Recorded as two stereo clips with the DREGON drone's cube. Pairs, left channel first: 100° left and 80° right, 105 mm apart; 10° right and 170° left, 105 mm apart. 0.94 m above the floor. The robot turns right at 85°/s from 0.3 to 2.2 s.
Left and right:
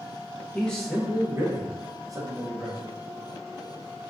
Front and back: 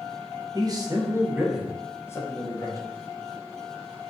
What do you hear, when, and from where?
0.5 s a man speaking: 165° left, 0.5 m; by 2.9 s 55° right, 0.5 m